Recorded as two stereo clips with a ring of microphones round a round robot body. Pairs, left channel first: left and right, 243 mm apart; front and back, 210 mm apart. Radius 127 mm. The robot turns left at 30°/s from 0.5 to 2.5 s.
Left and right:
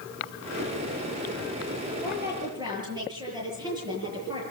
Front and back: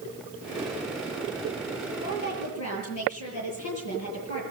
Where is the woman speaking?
5° right, 8 m; by 4.4 s 15° right, 8 m.